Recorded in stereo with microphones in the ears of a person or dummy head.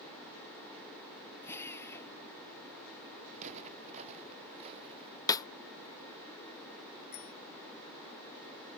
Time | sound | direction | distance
1.4 | a drill | 10° left (ahead or behind) | ?
3.3 | footsteps | 40° right (ahead or behind) | ?
5.3 | a snare drum | 15° left (ahead or behind) | ?
7.1 | a bicycle bell | 45° left (ahead or behind) | ?